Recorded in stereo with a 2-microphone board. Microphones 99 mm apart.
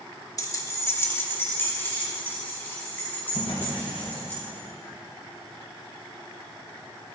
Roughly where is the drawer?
Left.